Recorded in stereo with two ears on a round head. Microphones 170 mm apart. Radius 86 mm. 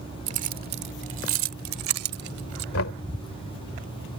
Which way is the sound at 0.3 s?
35° right (ahead or behind).